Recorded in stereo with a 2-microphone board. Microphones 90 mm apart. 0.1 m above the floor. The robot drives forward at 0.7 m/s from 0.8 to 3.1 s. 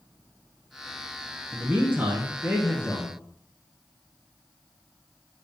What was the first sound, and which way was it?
A man speaking, 15° right (ahead or behind).